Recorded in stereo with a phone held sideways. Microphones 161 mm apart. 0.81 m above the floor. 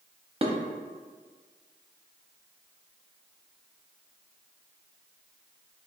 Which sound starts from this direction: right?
Dishes clattering, at 0.4 s.